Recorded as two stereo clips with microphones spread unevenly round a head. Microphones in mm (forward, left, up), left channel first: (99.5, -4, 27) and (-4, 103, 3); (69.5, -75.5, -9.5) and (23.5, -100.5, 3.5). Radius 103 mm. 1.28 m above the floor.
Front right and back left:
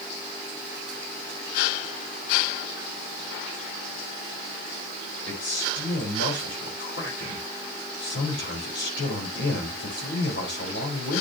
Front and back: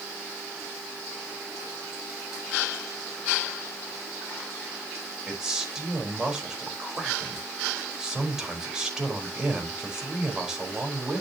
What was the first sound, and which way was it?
A man speaking, 75° right.